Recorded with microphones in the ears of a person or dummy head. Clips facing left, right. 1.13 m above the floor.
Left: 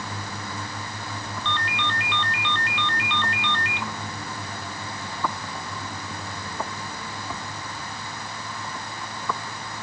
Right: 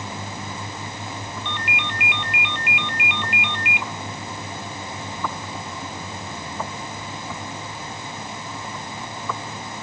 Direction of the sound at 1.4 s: 15° right (ahead or behind).